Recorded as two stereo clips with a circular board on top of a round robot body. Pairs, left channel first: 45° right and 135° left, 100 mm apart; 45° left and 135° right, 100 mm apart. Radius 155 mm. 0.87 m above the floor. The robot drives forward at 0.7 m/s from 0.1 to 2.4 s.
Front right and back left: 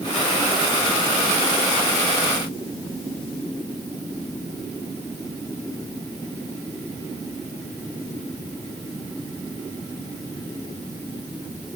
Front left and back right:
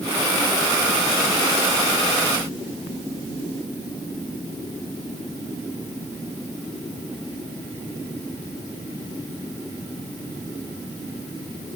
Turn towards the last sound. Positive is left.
No sound to turn to.